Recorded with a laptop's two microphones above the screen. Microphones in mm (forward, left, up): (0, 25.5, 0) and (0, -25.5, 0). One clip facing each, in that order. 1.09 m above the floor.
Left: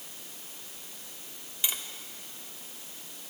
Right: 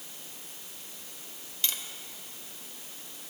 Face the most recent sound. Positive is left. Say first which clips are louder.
# left 1 dB
turn(degrees=15)  # may be behind; listen again after turning